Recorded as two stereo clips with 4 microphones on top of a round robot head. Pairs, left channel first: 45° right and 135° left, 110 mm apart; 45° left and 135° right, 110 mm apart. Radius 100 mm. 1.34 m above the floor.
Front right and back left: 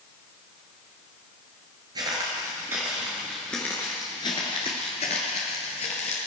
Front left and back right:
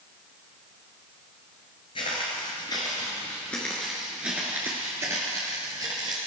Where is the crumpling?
No crumpling in this recording.